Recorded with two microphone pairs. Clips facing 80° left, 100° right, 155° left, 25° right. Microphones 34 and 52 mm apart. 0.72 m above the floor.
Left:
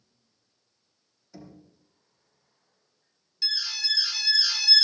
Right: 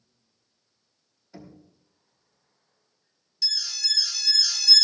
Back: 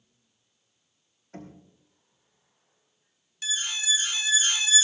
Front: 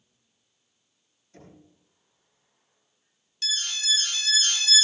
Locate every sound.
1.3 s knocking: 175° right, 4 m
3.4 s an alarm: 110° left, 0.6 m